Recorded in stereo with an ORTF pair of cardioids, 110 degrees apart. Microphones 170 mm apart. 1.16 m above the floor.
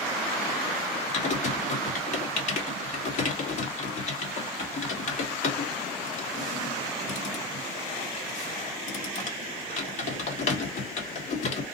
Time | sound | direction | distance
1.1 | typing on a keyboard | 50° left | 1.3 m